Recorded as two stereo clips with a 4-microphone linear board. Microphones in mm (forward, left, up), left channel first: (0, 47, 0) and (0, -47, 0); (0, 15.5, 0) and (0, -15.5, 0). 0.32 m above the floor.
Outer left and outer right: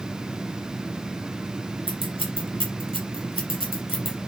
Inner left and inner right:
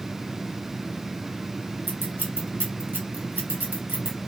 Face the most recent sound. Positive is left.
turn(degrees=-80)